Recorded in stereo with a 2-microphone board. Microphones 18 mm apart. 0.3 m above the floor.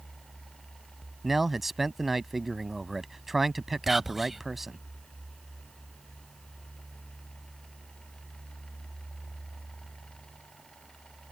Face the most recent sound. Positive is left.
turn(degrees=-10)  # may be behind; listen again after turning